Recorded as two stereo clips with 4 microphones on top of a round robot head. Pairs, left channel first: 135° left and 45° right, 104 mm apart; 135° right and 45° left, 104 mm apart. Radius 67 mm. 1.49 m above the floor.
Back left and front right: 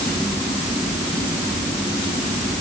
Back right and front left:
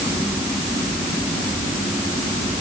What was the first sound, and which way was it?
Only background noise.